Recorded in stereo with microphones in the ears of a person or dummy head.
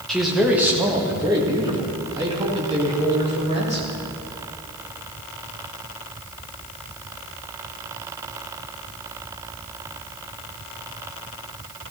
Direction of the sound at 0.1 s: Centre (ahead or behind).